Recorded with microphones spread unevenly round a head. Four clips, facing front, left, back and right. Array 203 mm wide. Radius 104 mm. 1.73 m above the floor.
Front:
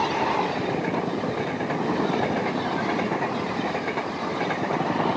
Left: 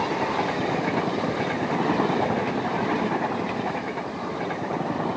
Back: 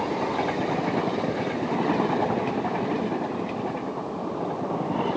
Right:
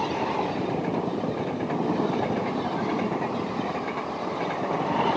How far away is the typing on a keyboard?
No typing on a keyboard in this recording.